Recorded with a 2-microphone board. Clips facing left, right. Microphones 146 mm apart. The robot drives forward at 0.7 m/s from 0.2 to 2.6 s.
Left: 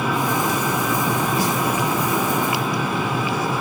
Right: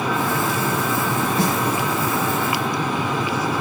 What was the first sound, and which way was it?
A snare drum, 25° right (ahead or behind).